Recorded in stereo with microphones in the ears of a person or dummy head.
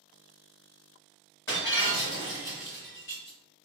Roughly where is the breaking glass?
Centre.